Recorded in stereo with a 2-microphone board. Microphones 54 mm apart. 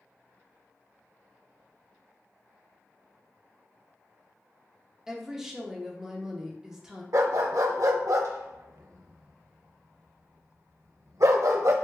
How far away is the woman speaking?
About 0.7 m.